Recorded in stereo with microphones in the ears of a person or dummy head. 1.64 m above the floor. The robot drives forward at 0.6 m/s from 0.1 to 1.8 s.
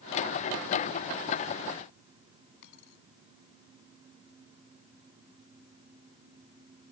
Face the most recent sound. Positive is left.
turn(degrees=65)  # may be behind; listen again after turning